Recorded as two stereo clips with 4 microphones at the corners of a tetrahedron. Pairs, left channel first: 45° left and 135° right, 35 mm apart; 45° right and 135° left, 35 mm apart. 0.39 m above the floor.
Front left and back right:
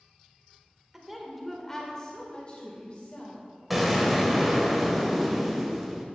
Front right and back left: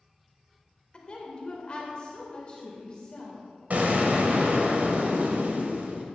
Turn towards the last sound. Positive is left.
turn(degrees=140)